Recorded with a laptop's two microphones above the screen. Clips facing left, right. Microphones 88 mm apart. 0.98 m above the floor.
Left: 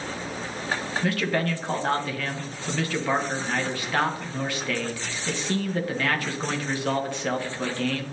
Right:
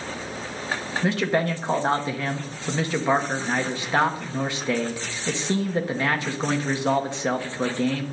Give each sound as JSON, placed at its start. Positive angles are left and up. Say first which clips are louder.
{"t": 1.0, "sound": "a man speaking", "louder": "right 3 dB", "side_deg": -20, "distance_m": 0.8}